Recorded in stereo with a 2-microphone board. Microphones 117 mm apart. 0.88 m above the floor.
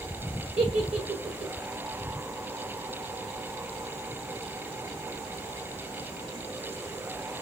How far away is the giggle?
About 1.5 m.